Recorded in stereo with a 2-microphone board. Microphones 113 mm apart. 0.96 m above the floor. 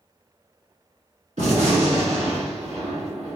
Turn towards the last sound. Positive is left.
turn(degrees=-80)